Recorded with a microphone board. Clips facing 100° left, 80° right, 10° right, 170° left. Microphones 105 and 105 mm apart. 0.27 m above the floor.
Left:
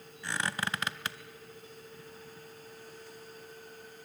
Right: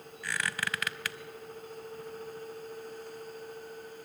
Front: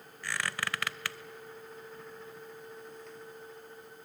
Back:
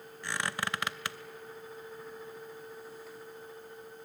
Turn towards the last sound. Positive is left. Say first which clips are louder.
# left 1 dB, back 1 dB
turn(degrees=125)